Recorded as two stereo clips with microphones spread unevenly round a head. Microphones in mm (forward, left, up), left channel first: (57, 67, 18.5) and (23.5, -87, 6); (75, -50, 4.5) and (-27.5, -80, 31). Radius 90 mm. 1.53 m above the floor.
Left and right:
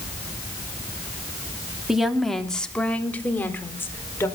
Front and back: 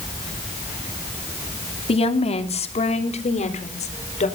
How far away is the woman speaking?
About 2.5 m.